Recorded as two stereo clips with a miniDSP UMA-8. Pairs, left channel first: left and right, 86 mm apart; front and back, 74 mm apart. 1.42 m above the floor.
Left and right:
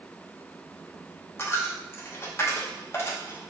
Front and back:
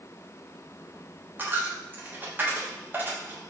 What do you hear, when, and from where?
1.4 s a dropped coin: 130° left, 1.0 m